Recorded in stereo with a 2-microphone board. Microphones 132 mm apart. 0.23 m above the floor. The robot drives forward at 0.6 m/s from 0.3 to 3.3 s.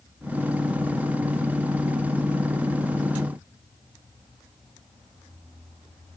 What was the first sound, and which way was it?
Only background noise.